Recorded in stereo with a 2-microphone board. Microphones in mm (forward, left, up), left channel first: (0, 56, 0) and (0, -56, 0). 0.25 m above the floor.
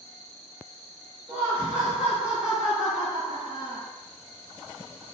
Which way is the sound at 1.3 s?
10° right (ahead or behind).